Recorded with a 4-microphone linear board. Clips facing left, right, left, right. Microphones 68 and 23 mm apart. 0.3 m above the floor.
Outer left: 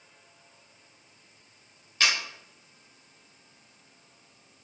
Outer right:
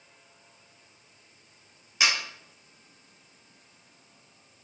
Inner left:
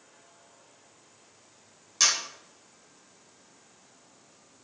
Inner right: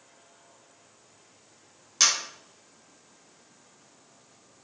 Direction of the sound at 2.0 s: 15° right (ahead or behind).